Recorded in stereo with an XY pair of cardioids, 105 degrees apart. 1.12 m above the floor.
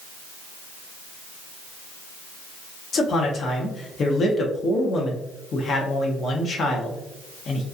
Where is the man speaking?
50° left, 0.7 m.